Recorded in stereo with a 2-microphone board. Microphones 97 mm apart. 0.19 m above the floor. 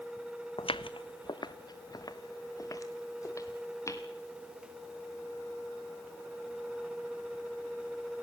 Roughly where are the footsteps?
Left.